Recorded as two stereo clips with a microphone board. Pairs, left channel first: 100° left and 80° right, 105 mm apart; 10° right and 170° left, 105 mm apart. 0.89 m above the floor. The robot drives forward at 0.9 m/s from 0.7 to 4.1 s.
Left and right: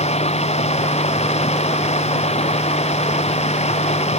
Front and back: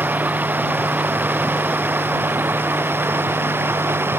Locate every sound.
0.0 s running water: 95° left; by 4.2 s 100° left